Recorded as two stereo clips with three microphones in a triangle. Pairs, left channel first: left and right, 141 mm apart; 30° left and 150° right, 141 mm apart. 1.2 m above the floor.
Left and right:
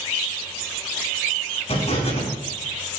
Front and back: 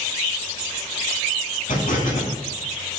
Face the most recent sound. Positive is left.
turn(degrees=45)